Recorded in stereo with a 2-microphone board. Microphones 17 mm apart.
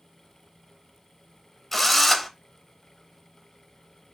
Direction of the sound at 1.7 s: 5° left (ahead or behind).